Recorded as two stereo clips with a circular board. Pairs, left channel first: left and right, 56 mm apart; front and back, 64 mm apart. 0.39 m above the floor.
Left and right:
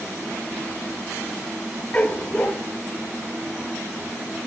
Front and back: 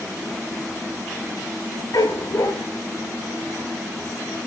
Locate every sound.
1.9 s a dog barking: 25° left, 2 m